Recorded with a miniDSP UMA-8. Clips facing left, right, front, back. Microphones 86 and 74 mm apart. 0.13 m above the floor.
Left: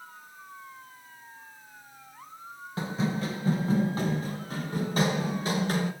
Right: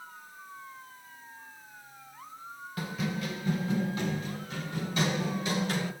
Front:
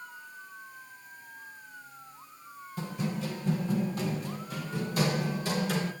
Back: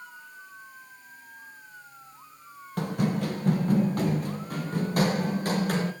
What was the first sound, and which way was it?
Running footsteps, 155° left.